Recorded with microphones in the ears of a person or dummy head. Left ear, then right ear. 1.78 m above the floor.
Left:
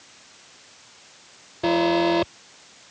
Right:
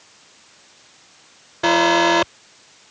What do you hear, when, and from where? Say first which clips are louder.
1.6 s an alarm: right 5 dB; 55° right (ahead or behind)